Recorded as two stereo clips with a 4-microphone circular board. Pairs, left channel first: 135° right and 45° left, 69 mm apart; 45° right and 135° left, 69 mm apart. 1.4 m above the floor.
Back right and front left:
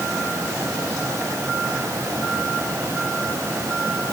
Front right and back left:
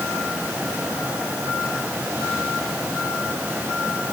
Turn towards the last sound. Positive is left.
No sound to turn to.